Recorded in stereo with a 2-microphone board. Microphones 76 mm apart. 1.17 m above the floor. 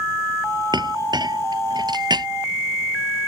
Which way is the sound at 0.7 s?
65° right (ahead or behind).